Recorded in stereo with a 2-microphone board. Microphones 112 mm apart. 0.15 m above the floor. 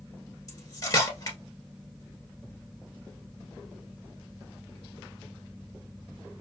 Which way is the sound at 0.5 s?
35° left (ahead or behind).